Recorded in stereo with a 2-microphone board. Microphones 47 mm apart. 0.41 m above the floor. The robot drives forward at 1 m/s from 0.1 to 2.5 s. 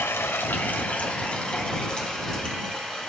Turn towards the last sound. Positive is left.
turn(degrees=15)  # may be behind; listen again after turning